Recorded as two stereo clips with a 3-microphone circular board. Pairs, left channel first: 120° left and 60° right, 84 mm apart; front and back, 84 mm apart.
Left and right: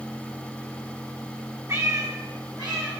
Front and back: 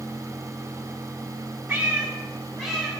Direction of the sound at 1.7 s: 105° right.